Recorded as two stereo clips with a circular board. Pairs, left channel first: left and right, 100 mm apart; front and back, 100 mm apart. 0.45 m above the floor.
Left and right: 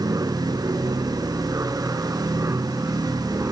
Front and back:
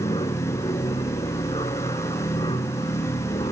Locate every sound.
0.0 s an aircraft: 35° right; by 3.5 s 25° right